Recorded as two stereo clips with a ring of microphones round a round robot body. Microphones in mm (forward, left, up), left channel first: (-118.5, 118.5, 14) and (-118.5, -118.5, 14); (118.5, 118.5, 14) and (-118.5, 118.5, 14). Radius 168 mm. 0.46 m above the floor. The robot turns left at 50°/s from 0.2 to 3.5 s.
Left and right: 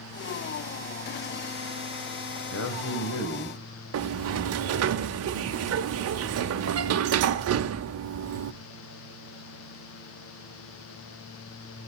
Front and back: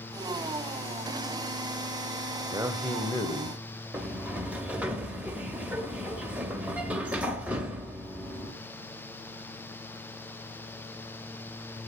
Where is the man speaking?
110° left, 2 m; by 3.6 s 60° left, 2 m.